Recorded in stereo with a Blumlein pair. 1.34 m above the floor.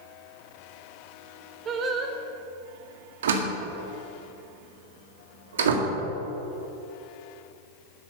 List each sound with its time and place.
1.6 s singing: 25° right, 1.6 m
3.2 s a door slam: 60° right, 1.8 m